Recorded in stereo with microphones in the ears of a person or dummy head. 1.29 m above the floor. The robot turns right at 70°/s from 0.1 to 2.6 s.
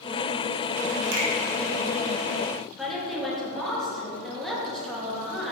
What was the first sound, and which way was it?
A finger snap, 60° right (ahead or behind).